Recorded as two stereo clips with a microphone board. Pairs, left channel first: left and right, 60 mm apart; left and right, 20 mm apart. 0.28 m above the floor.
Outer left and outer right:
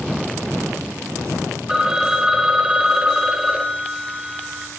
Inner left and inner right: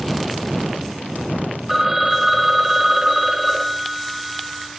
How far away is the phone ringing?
About 0.8 m.